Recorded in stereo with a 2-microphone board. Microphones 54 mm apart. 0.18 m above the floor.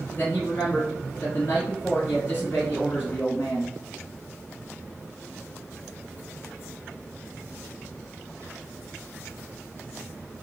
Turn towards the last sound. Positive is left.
turn(degrees=45)  # may be behind; listen again after turning